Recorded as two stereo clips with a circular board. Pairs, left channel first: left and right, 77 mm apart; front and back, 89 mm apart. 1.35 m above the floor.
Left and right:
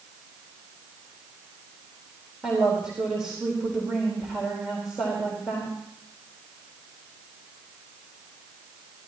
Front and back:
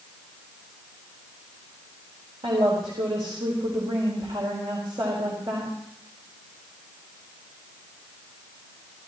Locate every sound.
2.4 s a woman speaking: 170° right, 4 m